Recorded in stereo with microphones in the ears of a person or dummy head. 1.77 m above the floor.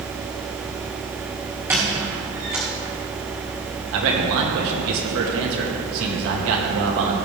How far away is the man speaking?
About 2 m.